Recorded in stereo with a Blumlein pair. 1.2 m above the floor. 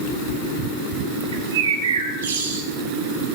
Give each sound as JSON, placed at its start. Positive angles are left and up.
{"t": 1.3, "sound": "a bird", "azimuth_deg": -65, "distance_m": 4.5}